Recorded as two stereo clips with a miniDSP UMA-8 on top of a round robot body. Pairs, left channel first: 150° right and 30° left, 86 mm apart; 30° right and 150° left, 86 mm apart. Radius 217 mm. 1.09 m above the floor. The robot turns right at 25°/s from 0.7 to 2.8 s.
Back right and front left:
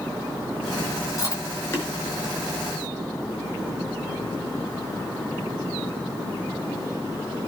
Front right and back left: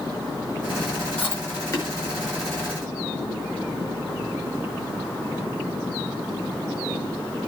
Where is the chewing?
100° right, 5.5 m; by 1.9 s 80° right, 5.5 m.